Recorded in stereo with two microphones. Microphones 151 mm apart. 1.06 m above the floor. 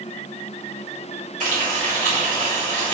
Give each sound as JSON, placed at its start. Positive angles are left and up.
{"t": 1.4, "sound": "frying", "side_deg": -65, "distance_m": 2.0}